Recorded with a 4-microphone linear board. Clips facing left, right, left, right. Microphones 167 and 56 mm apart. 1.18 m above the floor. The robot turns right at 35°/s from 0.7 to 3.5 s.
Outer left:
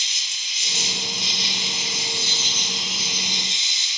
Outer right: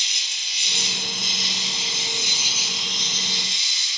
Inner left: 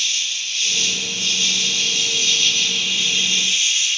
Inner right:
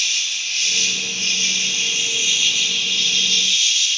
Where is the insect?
75° right, 1.4 m; by 4.0 s 25° left, 1.4 m.